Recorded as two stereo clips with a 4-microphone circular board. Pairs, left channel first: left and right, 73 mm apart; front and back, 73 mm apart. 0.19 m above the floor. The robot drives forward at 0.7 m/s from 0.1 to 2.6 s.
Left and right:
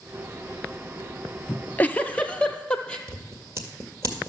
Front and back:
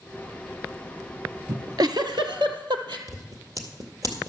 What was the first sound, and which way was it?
A giggle, 145° left.